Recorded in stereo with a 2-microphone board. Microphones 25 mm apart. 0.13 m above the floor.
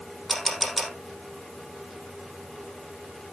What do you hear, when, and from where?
0.3 s a camera shutter: 15° right (ahead or behind), 3.5 m